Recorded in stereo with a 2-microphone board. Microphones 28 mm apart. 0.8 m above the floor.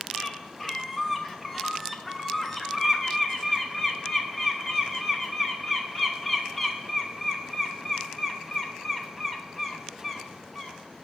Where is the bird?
10° left (ahead or behind), 1.0 m.